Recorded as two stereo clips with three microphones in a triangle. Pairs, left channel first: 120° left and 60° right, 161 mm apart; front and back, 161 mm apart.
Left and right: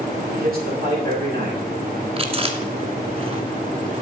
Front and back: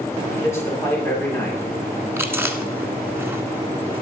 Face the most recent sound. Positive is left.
turn(degrees=-105)